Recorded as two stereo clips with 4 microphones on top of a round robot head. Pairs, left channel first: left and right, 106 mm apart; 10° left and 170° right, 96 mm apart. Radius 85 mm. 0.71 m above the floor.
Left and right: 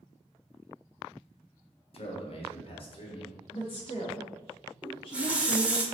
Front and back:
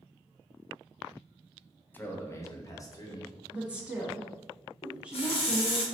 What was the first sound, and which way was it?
A man speaking, 80° left.